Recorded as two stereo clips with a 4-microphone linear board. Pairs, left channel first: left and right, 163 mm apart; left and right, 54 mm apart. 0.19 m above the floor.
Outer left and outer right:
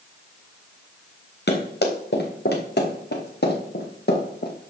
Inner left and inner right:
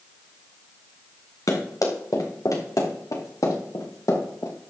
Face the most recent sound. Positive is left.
turn(degrees=70)  # may be behind; listen again after turning